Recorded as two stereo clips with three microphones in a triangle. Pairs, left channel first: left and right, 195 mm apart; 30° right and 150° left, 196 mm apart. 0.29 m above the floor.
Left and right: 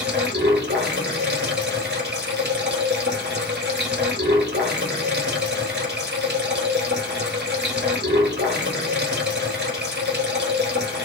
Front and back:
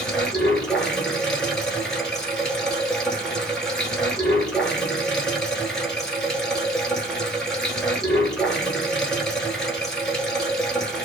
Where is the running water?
115° right, 1.2 m.